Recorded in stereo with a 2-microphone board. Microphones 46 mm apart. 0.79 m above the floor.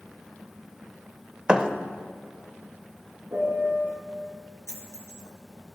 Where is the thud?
15° right (ahead or behind), 0.5 m.